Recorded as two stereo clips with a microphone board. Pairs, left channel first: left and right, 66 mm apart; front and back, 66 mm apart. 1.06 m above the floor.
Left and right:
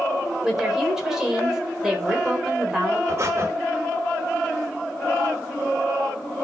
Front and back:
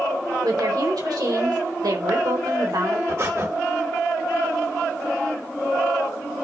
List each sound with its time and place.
0.4 s a woman speaking: 170° right, 4 m
3.1 s breathing: 135° right, 1.8 m